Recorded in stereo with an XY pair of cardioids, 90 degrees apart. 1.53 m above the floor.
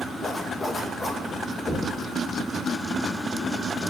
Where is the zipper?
30° left, 2 m.